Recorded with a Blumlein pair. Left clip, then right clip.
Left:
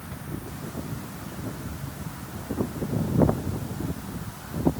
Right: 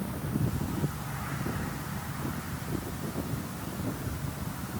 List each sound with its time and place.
Only background noise.